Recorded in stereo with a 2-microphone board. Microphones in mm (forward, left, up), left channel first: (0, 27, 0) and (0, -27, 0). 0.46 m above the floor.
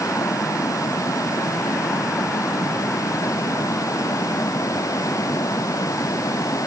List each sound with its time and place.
0.0 s running water: 90° left